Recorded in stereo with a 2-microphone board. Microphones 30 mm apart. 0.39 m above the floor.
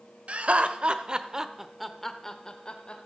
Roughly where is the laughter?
Right.